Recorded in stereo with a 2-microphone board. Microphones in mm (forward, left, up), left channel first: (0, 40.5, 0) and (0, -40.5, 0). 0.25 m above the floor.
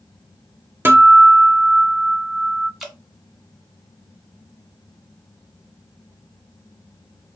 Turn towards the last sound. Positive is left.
turn(degrees=-5)  # may be behind; listen again after turning